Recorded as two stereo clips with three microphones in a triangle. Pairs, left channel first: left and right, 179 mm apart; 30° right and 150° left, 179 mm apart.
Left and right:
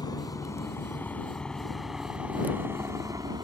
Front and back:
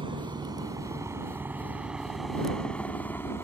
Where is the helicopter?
130° left; by 3.5 s 80° right.